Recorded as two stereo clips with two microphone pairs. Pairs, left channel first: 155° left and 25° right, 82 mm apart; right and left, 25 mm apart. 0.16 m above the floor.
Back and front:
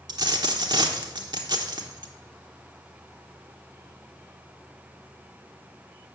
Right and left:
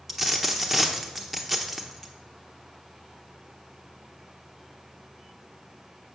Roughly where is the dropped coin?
Ahead.